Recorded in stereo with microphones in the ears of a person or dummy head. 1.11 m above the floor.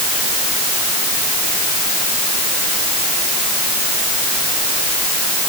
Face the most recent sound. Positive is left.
No sound to turn to.